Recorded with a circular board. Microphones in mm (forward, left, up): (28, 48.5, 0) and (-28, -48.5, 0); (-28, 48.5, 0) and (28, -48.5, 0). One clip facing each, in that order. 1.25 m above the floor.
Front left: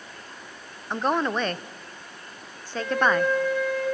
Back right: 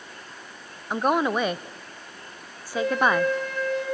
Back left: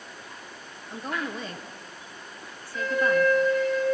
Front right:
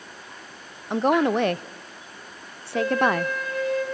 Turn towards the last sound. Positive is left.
turn(degrees=-115)